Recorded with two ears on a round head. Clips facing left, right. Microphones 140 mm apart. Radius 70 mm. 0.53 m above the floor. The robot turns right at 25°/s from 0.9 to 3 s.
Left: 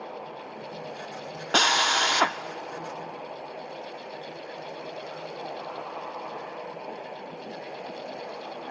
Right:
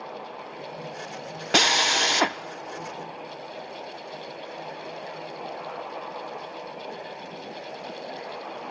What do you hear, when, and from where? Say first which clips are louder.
1.5 s a drill: right 1 dB; 15° right (ahead or behind), 0.5 m; by 2.4 s 25° right (ahead or behind), 0.5 m